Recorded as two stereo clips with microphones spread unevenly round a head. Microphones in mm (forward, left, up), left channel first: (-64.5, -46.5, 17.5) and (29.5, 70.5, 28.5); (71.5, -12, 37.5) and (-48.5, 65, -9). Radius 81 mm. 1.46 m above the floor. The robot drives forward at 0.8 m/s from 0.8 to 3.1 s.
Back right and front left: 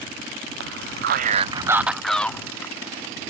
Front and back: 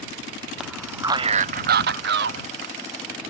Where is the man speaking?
60° left; by 2.8 s 155° left.